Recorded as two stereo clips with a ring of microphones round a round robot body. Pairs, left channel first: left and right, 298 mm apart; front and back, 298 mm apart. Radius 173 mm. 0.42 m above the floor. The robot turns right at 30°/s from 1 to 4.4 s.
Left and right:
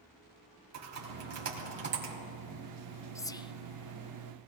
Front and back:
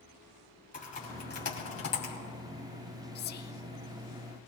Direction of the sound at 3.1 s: 15° left.